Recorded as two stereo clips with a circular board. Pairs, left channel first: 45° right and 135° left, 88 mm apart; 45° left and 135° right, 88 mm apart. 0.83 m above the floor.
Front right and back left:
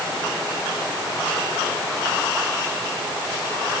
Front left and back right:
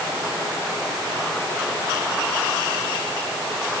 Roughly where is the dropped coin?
I don't hear a dropped coin.